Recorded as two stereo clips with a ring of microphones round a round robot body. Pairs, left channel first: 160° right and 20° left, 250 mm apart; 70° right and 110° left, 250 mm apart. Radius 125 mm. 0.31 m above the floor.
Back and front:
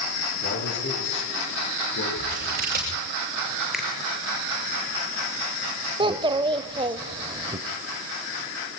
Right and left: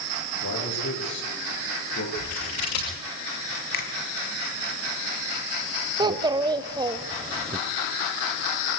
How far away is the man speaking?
About 7.5 m.